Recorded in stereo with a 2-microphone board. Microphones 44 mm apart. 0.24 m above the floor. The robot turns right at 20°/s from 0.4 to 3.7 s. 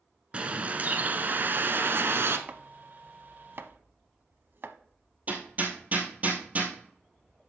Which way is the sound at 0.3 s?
150° right.